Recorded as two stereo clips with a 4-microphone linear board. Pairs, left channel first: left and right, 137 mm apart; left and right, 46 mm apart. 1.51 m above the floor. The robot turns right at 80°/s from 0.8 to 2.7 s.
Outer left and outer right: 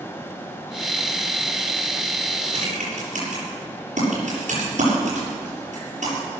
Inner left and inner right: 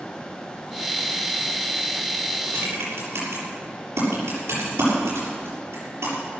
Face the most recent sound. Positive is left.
turn(degrees=-65)  # may be behind; listen again after turning